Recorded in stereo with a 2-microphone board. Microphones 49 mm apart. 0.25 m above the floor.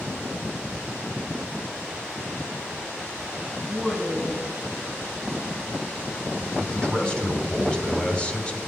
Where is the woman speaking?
5° left (ahead or behind), 1.6 m.